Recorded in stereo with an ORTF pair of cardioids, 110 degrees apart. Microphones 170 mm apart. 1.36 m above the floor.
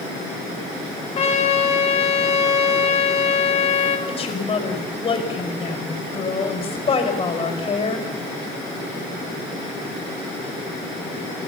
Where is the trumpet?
35° left, 5 m.